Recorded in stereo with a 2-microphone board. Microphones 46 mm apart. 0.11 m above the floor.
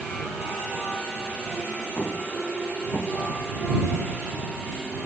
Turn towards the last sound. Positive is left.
turn(degrees=50)  # may be behind; listen again after turning